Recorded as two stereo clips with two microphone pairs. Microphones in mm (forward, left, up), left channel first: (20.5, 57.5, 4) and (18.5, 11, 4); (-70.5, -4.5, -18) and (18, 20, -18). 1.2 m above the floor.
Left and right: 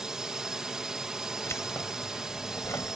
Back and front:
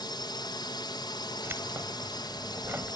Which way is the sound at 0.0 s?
165° right.